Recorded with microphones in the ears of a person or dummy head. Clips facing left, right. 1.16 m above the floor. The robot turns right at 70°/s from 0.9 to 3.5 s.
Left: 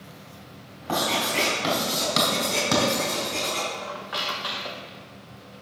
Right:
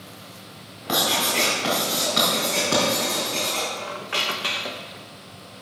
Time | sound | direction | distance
0.9 | writing | 25° right (ahead or behind) | 4 m
3.8 | a squeak | 35° right (ahead or behind) | 0.6 m